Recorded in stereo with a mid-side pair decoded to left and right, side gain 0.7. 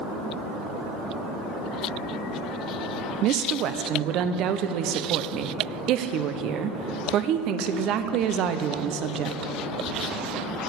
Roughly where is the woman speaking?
Ahead right.